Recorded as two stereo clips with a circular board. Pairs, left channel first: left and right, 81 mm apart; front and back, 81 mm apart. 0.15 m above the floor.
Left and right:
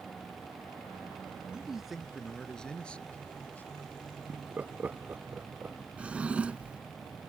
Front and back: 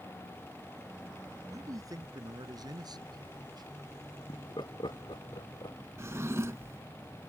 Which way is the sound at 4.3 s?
20° right.